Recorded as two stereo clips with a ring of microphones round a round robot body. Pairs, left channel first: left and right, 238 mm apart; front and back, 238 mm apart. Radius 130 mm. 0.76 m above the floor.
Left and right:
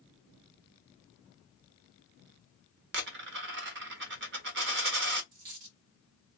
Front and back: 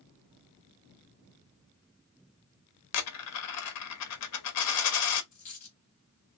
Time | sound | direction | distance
2.9 | a dropped coin | 35° right | 0.6 m
5.3 | a dropped coin | 65° right | 1.3 m